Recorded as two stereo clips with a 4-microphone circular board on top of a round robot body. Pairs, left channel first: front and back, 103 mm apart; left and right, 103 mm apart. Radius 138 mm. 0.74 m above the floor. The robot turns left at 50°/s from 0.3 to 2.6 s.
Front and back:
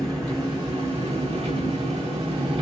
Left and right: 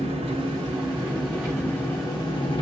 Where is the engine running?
120° right, 4.5 m; by 2.6 s 125° left, 4.5 m.